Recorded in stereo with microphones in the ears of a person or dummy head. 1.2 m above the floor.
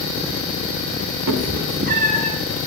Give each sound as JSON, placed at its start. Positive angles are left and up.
{"t": 1.3, "sound": "a cat meowing", "side_deg": -60, "distance_m": 0.6}